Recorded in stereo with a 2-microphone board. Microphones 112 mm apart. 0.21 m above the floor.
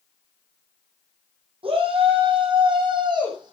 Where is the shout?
55° right (ahead or behind), 7 m; by 3.5 s 40° right (ahead or behind), 7 m.